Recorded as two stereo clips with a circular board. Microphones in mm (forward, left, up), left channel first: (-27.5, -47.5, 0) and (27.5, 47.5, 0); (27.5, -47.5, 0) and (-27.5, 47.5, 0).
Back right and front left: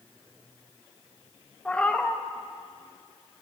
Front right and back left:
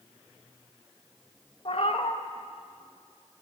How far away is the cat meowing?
About 0.7 m.